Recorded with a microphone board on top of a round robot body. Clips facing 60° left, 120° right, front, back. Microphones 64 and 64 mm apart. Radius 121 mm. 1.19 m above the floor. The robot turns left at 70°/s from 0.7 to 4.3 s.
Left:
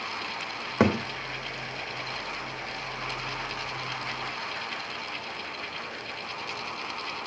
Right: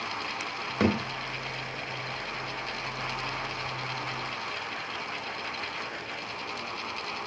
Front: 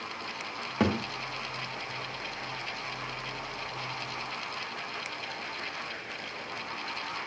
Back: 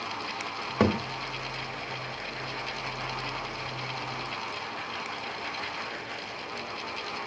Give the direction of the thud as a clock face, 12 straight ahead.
9 o'clock.